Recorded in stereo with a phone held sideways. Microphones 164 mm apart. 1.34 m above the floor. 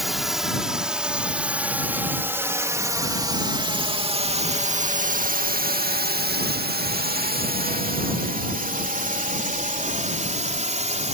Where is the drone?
Centre (ahead or behind); by 11.2 s 45° right (ahead or behind).